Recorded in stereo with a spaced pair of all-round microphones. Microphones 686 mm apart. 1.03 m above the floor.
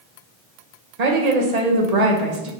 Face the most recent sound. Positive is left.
turn(degrees=-70)  # may be behind; listen again after turning